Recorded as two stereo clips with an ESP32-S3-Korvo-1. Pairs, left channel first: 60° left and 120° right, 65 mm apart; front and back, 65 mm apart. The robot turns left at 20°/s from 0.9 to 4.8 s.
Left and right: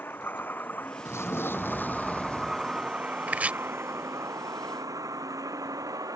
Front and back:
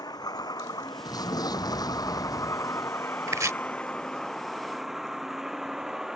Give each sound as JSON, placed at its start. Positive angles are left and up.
{"t": 0.0, "sound": "a vehicle", "azimuth_deg": 0}
{"t": 1.1, "sound": "an explosion", "azimuth_deg": 15}
{"t": 3.3, "sound": "chopping", "azimuth_deg": 180}